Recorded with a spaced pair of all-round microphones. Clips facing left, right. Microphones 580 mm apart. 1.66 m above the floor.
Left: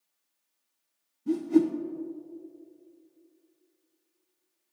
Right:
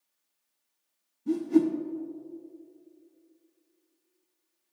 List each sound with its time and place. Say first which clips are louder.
1.3 s a whoosh: even; centre (ahead or behind), 0.6 m